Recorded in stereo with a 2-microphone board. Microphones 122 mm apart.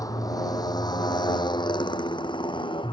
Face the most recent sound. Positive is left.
turn(degrees=45)  # may be behind; listen again after turning